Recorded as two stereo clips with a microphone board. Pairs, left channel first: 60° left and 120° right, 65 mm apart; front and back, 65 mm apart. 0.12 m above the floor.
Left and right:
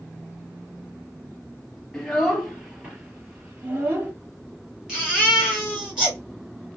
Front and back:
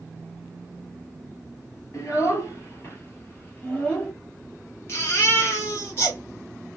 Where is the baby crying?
45° right, 1.9 m.